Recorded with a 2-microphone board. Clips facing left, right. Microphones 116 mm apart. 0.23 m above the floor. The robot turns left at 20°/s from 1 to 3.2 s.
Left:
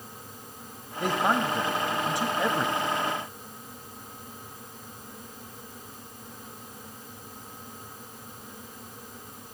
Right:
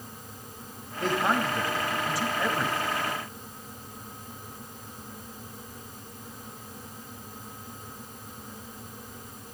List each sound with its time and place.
1.0 s a man speaking: 15° left (ahead or behind), 1.7 m; by 2.8 s 20° left (ahead or behind), 1.7 m